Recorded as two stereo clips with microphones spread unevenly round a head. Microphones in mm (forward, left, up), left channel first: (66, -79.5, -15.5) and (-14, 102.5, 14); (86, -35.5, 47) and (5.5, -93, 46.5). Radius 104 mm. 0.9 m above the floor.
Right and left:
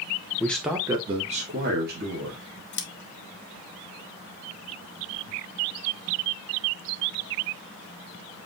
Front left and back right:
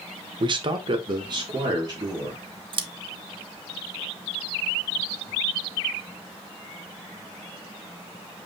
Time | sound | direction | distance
0.4 | a man speaking | 135° right | 0.8 m
2.7 | scissors | 105° right | 0.7 m